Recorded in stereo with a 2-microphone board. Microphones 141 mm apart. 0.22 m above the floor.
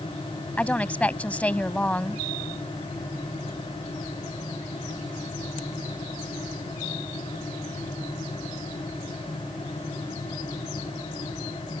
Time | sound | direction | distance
0.6 | a woman speaking | 10° left (ahead or behind) | ?